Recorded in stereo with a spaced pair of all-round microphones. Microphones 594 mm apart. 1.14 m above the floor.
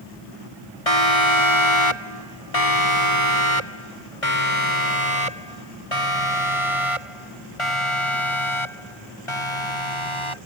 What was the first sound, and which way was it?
A siren, 70° left (ahead or behind).